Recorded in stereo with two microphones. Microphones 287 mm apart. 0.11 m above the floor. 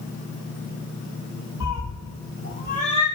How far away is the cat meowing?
About 1.3 m.